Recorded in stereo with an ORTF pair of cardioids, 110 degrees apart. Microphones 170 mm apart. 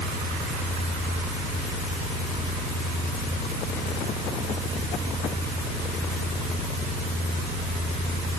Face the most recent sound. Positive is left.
No sound to turn to.